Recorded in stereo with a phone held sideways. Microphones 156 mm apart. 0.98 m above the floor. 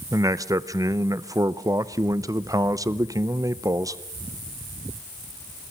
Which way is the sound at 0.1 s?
20° right (ahead or behind).